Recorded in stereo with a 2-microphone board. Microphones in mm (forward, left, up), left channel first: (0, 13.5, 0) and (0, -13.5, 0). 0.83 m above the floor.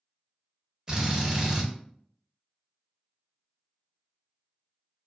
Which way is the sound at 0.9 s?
25° right (ahead or behind).